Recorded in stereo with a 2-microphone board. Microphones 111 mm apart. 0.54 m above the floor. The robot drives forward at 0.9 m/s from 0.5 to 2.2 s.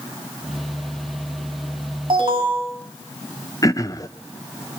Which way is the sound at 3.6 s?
30° left (ahead or behind).